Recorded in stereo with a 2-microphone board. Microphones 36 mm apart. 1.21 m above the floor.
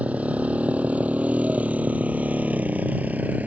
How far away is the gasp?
I don't hear a gasp.